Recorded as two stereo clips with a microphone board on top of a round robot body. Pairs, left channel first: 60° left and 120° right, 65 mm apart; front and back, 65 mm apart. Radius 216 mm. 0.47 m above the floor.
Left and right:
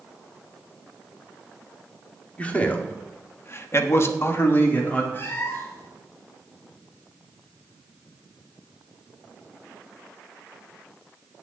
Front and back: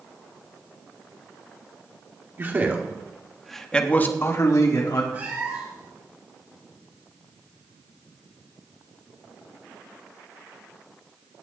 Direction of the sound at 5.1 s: 115° left.